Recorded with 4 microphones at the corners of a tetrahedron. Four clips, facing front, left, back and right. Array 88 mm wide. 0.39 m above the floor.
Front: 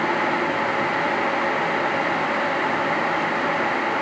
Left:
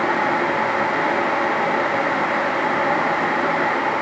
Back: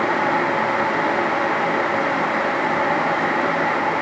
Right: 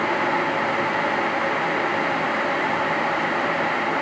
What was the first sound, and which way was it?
Only background noise.